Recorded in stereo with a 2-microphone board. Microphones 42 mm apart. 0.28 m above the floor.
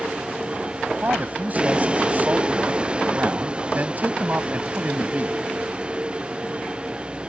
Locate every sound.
0.0 s a vehicle: 25° right (ahead or behind)
1.0 s a man speaking: 45° right (ahead or behind)